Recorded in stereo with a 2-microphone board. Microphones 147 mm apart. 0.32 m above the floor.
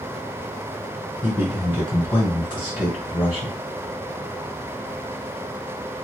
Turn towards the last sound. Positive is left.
turn(degrees=35)  # may be behind; listen again after turning